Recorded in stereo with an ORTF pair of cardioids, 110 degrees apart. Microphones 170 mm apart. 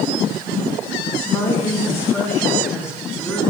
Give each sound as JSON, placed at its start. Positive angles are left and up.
{"t": 1.3, "sound": "a woman speaking", "azimuth_deg": 15, "distance_m": 1.8}